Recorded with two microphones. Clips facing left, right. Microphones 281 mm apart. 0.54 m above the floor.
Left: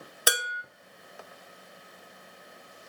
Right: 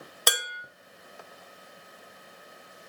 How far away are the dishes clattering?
About 0.6 m.